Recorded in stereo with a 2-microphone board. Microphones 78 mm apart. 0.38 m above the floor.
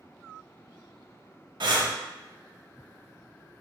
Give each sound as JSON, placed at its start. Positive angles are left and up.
{"t": 1.6, "sound": "breathing", "side_deg": -70, "distance_m": 0.5}